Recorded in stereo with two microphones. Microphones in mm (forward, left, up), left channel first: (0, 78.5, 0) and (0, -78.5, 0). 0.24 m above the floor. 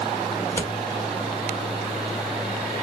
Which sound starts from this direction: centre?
Scissors, at 0.4 s.